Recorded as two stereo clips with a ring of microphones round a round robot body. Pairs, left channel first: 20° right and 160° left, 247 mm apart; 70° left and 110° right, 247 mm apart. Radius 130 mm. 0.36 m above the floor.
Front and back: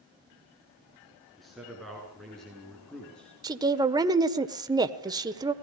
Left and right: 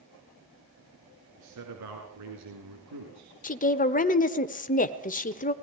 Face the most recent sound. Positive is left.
turn(degrees=95)